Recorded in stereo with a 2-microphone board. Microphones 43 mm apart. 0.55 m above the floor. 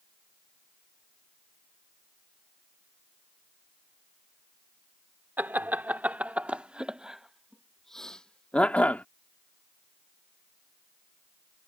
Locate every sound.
5.4 s laughter: 45° right (ahead or behind); by 9.1 s 40° left (ahead or behind)